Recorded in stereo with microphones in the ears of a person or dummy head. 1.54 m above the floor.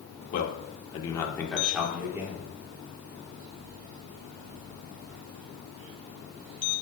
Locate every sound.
0.3 s a man speaking: 60° left (ahead or behind), 1.4 m; by 2.5 s 15° right (ahead or behind), 1.9 m